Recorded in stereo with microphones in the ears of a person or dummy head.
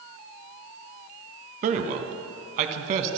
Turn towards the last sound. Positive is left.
turn(degrees=-45)  # may be behind; listen again after turning